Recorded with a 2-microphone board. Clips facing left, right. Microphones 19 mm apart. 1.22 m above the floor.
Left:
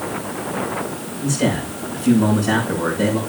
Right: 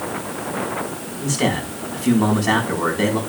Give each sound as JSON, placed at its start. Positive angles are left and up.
{"t": 1.2, "sound": "a man speaking", "side_deg": -60, "distance_m": 3.5}